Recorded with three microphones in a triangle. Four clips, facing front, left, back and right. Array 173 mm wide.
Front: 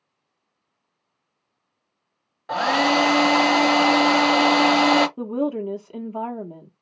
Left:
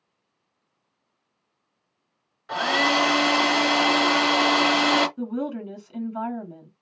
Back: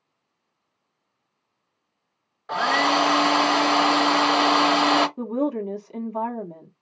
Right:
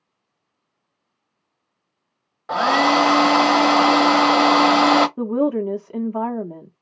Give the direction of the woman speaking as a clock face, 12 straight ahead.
3 o'clock.